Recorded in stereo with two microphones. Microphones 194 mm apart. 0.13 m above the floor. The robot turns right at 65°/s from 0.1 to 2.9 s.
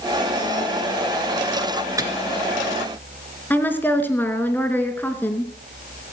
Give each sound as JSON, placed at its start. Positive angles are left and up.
{"t": 2.0, "sound": "a microwave", "side_deg": -15, "distance_m": 1.8}
{"t": 3.5, "sound": "a woman speaking", "side_deg": 10, "distance_m": 1.7}